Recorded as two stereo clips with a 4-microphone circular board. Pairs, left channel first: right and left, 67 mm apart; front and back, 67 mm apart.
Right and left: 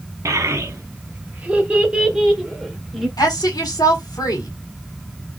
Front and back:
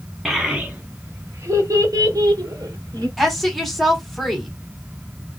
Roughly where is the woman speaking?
Right.